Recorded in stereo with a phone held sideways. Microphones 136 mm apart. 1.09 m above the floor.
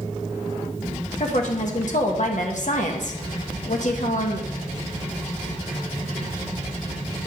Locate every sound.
1.2 s a woman speaking: 65° left (ahead or behind), 1.5 m